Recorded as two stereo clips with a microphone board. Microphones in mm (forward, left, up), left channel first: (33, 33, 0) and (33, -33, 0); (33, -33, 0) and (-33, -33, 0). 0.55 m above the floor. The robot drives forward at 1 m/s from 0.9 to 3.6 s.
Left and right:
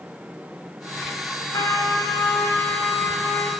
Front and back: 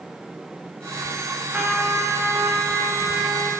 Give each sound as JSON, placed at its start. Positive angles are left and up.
{"t": 1.5, "sound": "a trumpet", "azimuth_deg": 115, "distance_m": 1.4}